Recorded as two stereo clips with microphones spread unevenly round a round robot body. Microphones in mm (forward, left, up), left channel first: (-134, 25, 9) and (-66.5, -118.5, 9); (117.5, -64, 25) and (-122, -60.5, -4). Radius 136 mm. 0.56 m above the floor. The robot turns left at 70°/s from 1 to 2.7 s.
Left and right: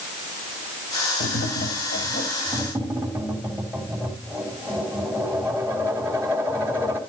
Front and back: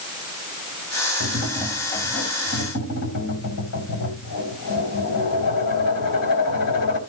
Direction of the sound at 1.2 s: 135° left.